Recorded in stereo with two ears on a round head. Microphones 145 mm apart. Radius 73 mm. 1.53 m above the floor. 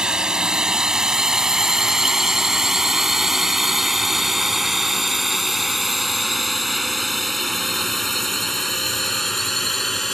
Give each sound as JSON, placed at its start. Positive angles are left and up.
{"t": 0.0, "sound": "a drone", "side_deg": -5}